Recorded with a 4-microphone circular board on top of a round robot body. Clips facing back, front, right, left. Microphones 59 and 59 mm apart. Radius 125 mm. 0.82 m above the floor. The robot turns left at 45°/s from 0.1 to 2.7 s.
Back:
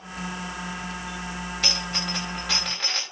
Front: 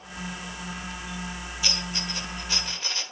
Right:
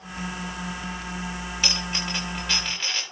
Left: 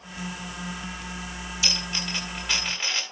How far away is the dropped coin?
About 8 m.